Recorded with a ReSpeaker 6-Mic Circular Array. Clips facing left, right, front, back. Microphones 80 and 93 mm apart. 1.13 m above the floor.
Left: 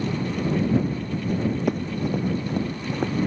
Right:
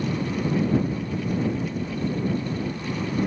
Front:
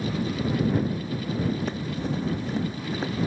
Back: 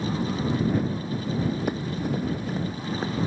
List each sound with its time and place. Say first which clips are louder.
1.7 s running footsteps: left 3 dB, back 2 dB; 105° left; by 3.3 s 90° left